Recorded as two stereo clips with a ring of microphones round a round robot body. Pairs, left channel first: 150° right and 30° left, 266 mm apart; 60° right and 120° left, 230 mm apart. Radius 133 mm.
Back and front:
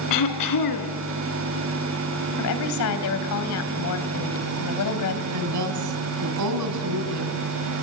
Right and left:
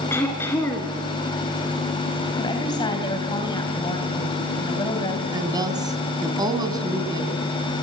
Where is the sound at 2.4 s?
135° right, 3 m.